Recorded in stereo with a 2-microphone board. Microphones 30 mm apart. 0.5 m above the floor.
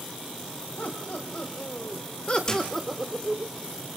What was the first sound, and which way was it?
Laughter, 65° left (ahead or behind).